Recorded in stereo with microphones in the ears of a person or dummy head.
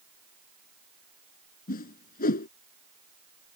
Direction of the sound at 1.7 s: 55° left (ahead or behind).